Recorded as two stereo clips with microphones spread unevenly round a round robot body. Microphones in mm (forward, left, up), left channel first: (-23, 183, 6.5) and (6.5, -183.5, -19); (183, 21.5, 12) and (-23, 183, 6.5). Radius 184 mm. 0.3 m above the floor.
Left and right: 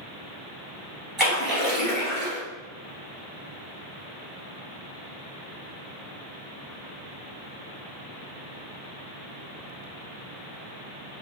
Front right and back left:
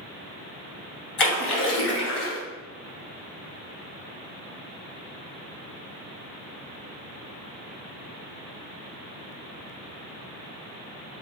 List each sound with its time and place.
1.2 s a splash: 5° left, 1.4 m